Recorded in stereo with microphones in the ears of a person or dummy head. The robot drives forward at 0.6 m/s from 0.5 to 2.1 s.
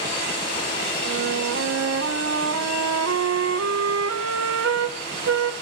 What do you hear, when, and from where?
1.1 s a flute: 65° right (ahead or behind), 1.4 m; by 5.5 s 85° right, 1.3 m